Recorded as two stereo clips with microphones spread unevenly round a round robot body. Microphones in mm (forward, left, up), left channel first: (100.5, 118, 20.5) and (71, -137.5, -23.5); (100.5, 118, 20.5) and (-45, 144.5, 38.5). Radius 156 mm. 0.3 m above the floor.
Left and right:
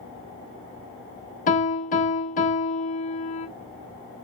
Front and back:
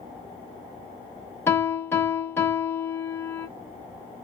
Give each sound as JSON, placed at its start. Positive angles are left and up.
{"t": 1.5, "sound": "a piano", "azimuth_deg": 35, "distance_m": 1.1}